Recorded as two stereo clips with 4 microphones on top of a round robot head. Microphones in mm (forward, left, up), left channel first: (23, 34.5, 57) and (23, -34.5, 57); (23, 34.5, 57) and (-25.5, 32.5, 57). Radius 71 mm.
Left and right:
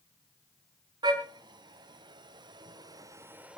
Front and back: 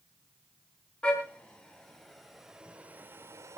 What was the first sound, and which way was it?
A car horn, 70° right.